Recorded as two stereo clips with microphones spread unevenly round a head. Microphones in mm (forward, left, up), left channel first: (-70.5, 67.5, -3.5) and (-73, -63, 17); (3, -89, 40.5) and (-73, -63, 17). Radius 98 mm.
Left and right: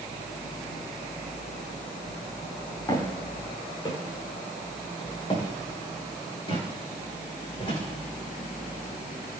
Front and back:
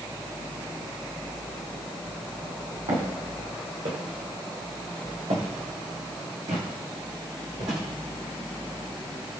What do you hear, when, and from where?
2.9 s footsteps: 150° left, 6 m; by 7.8 s 135° left, 8 m